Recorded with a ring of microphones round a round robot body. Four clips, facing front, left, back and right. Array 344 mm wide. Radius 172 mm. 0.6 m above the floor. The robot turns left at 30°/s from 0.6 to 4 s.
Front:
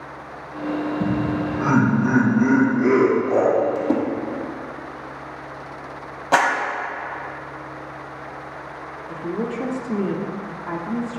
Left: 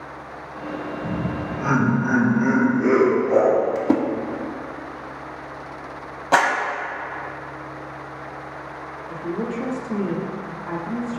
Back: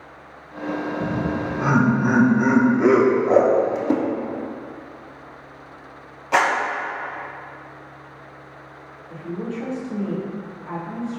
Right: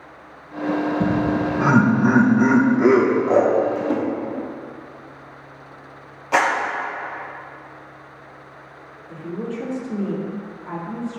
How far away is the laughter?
About 3.5 m.